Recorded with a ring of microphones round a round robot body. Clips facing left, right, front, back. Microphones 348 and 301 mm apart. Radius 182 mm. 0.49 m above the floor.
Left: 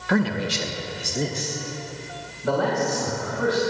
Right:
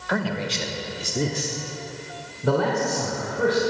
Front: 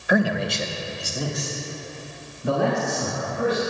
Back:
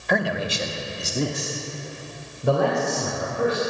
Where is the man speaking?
75° left, 1.1 m; by 3.6 s 130° right, 3 m.